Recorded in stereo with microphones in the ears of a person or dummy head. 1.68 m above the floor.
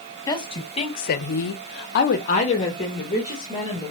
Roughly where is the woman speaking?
Centre.